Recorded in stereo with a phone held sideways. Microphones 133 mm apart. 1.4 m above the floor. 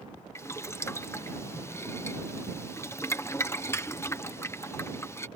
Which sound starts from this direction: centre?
Boiling, at 0.3 s.